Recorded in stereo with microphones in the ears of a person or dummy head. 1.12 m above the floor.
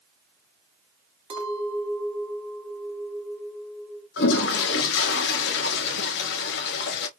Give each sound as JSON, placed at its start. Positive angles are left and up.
{"t": 1.3, "sound": "a clink", "side_deg": -30, "distance_m": 1.6}
{"t": 4.2, "sound": "a toilet flushing", "side_deg": 55, "distance_m": 0.7}